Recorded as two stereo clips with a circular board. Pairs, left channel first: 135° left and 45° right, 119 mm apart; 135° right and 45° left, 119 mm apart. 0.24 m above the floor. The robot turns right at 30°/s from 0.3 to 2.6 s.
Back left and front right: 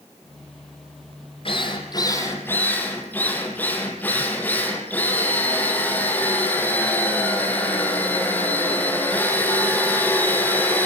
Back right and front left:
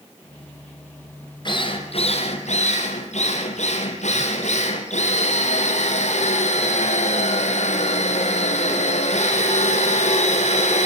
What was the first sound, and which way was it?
A drill, 175° left.